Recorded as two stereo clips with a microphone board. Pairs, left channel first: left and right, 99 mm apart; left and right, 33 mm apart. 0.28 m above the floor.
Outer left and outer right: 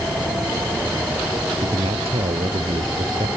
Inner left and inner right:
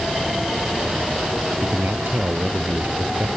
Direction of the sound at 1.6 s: 75° right (ahead or behind).